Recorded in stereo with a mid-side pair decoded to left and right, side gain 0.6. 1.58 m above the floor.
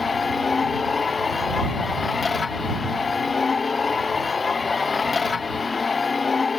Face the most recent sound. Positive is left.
turn(degrees=25)